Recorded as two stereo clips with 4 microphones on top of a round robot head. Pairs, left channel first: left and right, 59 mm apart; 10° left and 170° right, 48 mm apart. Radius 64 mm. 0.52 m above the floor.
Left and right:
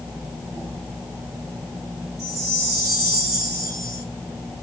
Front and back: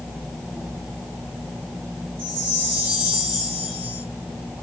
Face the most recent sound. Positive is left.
turn(degrees=-70)